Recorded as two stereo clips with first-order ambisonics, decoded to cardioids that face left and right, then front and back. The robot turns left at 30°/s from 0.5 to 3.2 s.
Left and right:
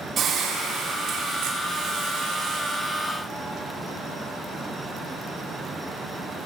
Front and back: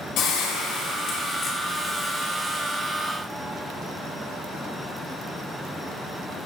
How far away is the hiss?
About 4 m.